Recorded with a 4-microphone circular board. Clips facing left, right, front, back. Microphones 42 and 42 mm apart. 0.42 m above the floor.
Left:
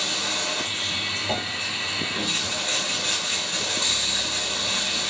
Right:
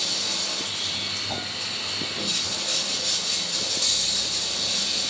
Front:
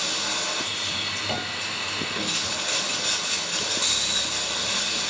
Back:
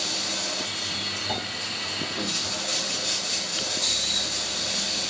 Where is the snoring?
40° left, 3 m.